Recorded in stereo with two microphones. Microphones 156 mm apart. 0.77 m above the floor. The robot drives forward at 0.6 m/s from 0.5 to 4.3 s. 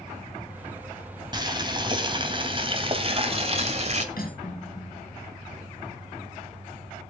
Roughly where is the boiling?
Right.